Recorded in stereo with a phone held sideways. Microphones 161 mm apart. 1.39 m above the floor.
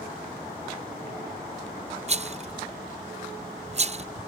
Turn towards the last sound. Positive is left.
turn(degrees=-45)  # may be behind; listen again after turning